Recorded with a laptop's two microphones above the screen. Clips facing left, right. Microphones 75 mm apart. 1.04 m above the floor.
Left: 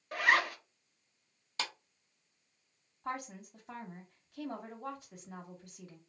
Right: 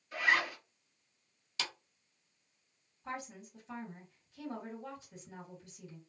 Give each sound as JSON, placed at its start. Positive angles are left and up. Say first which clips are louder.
{"t": 0.1, "sound": "a zipper", "louder": "left 2 dB", "side_deg": 65, "distance_m": 0.9}
{"t": 1.6, "sound": "a clap", "louder": "left 2 dB", "side_deg": 40, "distance_m": 0.7}
{"t": 3.0, "sound": "a woman speaking", "louder": "left 3 dB", "side_deg": 55, "distance_m": 1.1}